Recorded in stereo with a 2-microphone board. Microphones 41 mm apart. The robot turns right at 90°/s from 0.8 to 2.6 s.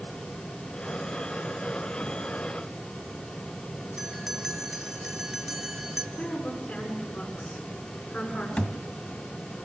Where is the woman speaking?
40° left (ahead or behind), 7.5 m.